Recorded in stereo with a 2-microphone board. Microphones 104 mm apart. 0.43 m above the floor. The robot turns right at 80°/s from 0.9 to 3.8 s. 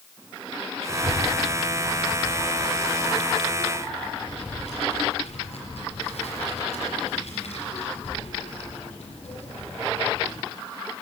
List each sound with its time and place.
0.9 s a child speaking: 25° right (ahead or behind), 5 m; by 10.4 s 75° left (ahead or behind), 5 m